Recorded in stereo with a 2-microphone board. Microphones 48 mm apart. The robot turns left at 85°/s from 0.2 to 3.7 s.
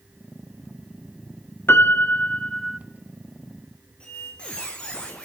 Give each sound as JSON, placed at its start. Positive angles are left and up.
{"t": 1.7, "sound": "a piano", "azimuth_deg": 90, "distance_m": 0.5}
{"t": 4.0, "sound": "a squeak", "side_deg": 20, "distance_m": 1.9}